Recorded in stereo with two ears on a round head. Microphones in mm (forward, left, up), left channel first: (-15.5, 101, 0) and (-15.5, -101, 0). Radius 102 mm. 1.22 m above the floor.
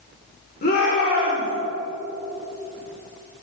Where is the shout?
45° left (ahead or behind), 4.5 m.